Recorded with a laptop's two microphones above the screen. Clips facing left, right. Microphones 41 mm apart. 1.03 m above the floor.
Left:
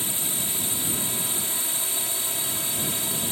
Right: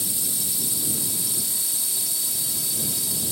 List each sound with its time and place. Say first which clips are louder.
0.0 s a drone: left 2 dB; 35° left (ahead or behind)